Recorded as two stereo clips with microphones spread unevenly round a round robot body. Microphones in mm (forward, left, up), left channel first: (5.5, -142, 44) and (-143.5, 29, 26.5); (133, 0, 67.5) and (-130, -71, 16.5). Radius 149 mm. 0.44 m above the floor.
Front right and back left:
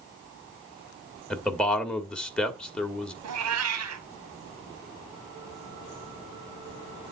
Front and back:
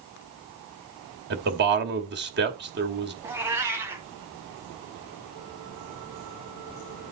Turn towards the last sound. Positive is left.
turn(degrees=115)